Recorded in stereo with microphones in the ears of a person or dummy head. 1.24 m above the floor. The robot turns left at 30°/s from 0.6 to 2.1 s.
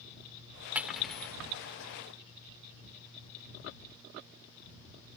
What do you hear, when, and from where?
0.8 s cutlery clinking: 5° right (ahead or behind); by 1.4 s 15° left (ahead or behind)